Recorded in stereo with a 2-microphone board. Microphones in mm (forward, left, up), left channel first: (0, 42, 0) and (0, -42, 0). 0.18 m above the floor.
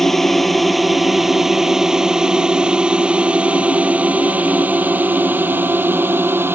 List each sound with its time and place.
0.0 s a drone: 5° left (ahead or behind); by 6.5 s 25° right (ahead or behind)